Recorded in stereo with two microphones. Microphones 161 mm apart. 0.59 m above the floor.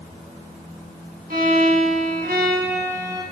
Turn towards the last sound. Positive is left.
turn(degrees=-70)  # may be behind; listen again after turning